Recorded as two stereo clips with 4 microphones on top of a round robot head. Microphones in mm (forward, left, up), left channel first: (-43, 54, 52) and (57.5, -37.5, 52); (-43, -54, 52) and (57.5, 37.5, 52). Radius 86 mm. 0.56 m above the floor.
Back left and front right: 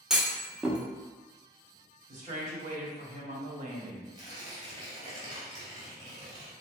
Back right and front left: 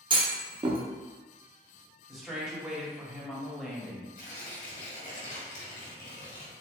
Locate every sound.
0.1 s a clunk: 40° left, 0.9 m
2.1 s a woman speaking: 45° right, 1.2 m
4.2 s tearing paper: 105° right, 2.0 m